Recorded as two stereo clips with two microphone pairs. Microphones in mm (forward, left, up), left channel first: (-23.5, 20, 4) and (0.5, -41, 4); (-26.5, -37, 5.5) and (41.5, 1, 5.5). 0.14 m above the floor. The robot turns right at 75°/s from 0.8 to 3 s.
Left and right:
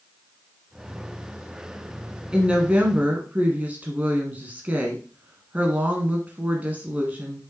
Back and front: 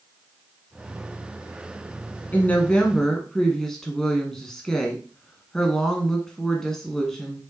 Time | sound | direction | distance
2.3 | a woman speaking | 125° right | 1.1 m